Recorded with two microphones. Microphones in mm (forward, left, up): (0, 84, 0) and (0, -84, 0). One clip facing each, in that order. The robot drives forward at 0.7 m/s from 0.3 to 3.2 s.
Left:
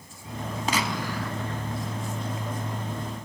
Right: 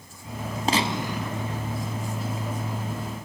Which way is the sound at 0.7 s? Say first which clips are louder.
Right 4 dB; 30° right (ahead or behind).